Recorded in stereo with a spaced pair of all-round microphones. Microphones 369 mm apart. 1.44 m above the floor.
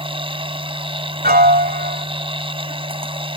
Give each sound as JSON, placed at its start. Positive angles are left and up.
{"t": 0.0, "sound": "a machine running", "side_deg": -15}
{"t": 1.2, "sound": "a piano", "side_deg": -25}